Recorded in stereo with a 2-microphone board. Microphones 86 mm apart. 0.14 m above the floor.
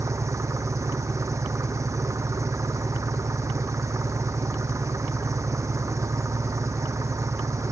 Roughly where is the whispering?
I don't hear whispering.